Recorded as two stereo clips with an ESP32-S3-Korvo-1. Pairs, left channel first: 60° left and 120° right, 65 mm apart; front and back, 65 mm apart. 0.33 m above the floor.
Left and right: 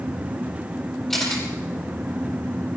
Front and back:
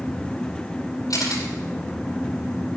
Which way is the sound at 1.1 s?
25° right.